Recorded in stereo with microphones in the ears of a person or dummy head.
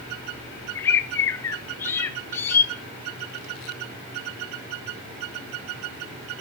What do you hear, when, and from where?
0.8 s a bird: 15° left (ahead or behind), 0.6 m